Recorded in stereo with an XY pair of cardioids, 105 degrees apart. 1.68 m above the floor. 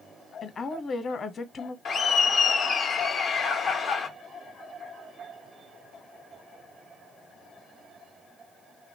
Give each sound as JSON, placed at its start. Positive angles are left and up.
{"t": 0.4, "sound": "a woman speaking", "azimuth_deg": 45, "distance_m": 0.9}
{"t": 1.9, "sound": "laughter", "azimuth_deg": 60, "distance_m": 0.6}